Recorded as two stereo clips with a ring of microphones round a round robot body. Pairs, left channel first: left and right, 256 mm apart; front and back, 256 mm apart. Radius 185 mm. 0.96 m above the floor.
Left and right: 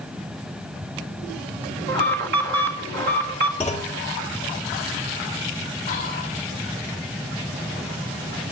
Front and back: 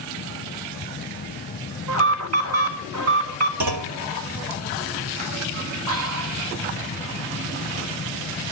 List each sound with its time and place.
1.9 s an alarm: 145° right, 2 m
3.6 s a clunk: 175° left, 1.2 m
5.9 s whispering: 165° left, 2.0 m